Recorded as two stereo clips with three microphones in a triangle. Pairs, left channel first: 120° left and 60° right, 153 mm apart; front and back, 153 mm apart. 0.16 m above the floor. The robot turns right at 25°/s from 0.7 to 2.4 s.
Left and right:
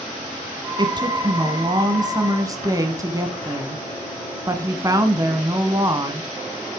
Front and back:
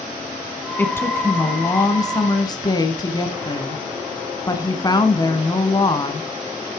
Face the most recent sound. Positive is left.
turn(degrees=-25)